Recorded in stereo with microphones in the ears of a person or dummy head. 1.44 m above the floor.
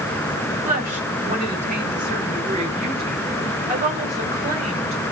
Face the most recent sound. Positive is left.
turn(degrees=-30)  # may be behind; listen again after turning